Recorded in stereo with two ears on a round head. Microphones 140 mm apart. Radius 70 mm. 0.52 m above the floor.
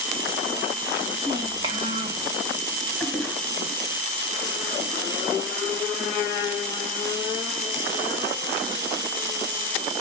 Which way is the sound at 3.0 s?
5° left (ahead or behind).